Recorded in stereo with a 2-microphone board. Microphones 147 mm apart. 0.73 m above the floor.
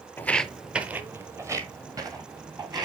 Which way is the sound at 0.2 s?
15° left (ahead or behind).